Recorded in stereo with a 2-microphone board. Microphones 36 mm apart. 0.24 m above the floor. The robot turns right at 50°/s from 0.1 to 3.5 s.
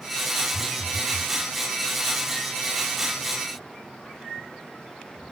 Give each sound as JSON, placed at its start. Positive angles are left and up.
{"t": 0.5, "sound": "a phone buzzing", "azimuth_deg": -140, "distance_m": 2.0}